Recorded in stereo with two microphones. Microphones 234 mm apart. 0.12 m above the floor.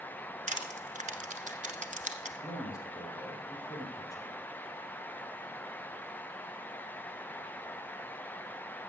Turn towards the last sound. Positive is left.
turn(degrees=15)  # may be behind; listen again after turning